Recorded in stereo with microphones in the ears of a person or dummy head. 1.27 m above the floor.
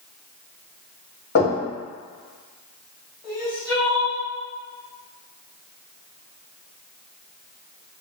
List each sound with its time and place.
1.4 s knocking: 55° left (ahead or behind), 1.8 m
3.2 s crying: 10° left (ahead or behind), 1.7 m